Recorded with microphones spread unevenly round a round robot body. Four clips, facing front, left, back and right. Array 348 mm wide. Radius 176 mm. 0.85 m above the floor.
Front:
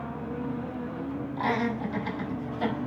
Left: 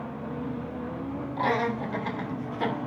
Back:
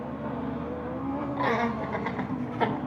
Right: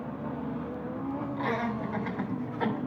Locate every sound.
1.4 s laughter: 140° left, 4 m; by 2.8 s 165° left, 2.5 m